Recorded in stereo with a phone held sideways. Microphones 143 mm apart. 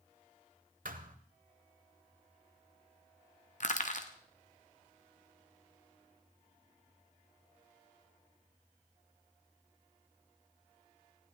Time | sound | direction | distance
0.8 | a thud | 70° right (ahead or behind) | 1.3 m
3.6 | crushing | 60° left (ahead or behind) | 1.4 m